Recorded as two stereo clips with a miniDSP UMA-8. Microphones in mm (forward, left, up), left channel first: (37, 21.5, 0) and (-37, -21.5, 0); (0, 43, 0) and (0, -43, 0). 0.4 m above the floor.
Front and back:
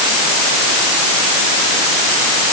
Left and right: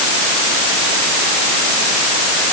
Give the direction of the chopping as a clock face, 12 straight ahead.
I don't hear chopping.